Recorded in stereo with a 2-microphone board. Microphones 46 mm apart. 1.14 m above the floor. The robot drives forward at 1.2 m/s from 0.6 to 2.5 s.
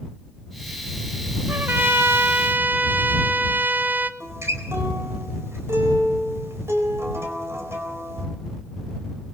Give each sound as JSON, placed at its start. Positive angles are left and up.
{"t": 1.5, "sound": "a trumpet", "side_deg": -40, "distance_m": 1.2}
{"t": 4.2, "sound": "a guitar", "side_deg": -75, "distance_m": 4.0}